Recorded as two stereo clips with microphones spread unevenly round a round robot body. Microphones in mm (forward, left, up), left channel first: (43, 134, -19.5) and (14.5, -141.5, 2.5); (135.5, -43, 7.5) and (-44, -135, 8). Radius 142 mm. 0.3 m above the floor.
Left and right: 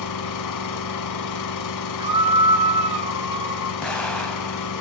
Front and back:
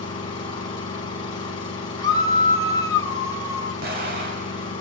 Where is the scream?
30° right, 1.9 m.